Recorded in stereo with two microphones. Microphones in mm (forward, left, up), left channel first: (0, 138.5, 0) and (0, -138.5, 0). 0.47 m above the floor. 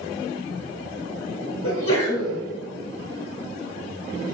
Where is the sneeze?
50° left (ahead or behind), 1.8 m.